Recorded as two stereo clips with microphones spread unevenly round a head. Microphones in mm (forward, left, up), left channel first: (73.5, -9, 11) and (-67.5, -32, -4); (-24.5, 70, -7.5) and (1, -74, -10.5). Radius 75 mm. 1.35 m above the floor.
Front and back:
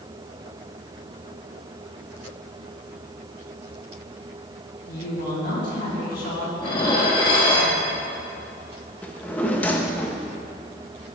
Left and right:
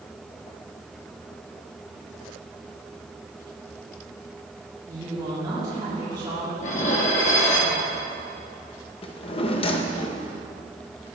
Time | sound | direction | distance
4.9 | a woman speaking | 15° right | 3 m
6.6 | dishes clattering | 60° left | 1.3 m
9.0 | a drawer | 80° left | 0.7 m